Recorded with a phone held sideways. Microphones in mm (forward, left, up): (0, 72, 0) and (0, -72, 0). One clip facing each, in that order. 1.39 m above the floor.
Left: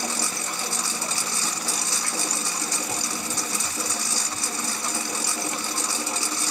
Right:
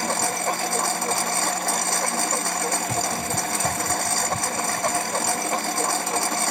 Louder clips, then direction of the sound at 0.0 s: Right 7 dB; 55° right (ahead or behind).